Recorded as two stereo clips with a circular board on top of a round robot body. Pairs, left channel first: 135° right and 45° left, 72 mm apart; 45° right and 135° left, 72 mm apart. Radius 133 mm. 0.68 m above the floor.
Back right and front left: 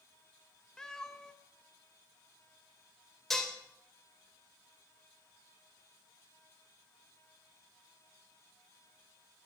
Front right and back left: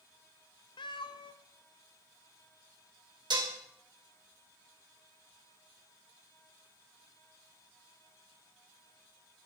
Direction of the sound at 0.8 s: 50° right.